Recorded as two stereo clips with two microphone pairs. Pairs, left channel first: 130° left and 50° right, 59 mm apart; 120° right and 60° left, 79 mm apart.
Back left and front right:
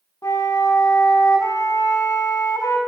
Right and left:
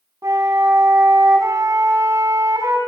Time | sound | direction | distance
0.2 | a flute | 110° left | 2 m